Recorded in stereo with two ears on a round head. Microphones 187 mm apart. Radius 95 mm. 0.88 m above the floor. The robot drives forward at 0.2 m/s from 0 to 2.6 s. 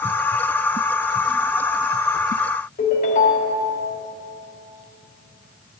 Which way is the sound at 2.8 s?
40° left (ahead or behind).